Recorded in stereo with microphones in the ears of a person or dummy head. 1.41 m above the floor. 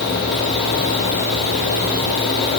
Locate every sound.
Only background noise.